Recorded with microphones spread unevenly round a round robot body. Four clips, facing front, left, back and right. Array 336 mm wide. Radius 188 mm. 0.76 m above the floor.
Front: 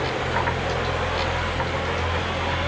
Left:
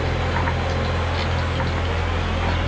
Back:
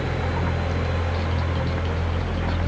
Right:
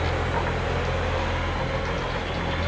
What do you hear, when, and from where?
Only background noise.